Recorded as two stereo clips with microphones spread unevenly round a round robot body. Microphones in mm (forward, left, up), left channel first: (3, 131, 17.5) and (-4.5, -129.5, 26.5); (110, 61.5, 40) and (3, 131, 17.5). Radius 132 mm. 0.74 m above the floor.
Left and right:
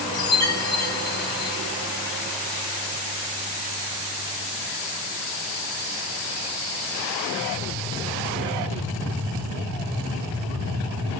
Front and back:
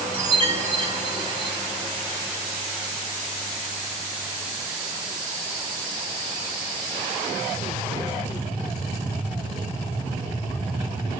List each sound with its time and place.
0.1 s a chime: 15° left, 1.6 m